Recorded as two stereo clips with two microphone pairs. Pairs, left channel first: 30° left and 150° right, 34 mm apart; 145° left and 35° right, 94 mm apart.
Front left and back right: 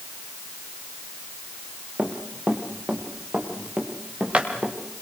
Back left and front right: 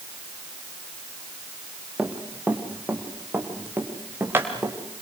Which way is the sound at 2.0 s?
110° right.